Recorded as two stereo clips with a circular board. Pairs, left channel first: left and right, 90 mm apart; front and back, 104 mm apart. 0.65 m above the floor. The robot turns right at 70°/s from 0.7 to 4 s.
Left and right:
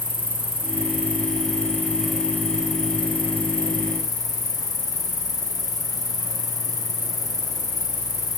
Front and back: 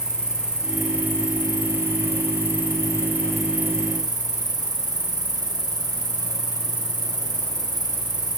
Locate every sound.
0.0 s an insect: 100° right, 4.5 m; by 8.4 s 135° left, 4.5 m